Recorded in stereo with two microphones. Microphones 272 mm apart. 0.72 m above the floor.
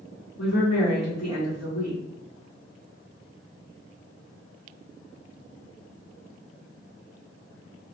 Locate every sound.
0.4 s a woman speaking: 70° left (ahead or behind), 1.5 m